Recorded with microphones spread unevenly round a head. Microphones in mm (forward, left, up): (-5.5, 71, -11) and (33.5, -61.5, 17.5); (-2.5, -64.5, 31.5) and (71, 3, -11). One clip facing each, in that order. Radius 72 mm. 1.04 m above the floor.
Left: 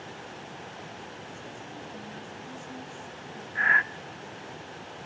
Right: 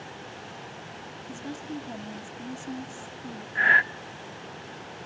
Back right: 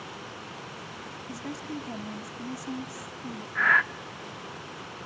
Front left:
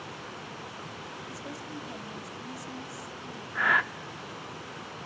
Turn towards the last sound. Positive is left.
turn(degrees=-45)